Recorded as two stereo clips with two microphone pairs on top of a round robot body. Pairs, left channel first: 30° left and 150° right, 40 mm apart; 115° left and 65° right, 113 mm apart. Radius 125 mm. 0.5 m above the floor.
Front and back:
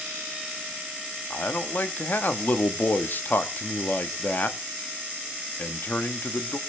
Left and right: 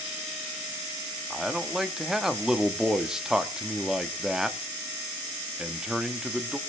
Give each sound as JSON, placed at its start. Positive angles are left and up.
{"t": 1.3, "sound": "a man speaking", "azimuth_deg": 20, "distance_m": 1.3}